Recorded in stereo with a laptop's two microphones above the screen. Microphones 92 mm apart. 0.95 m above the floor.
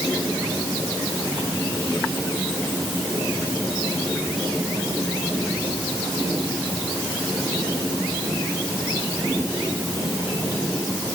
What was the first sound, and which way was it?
Only background noise.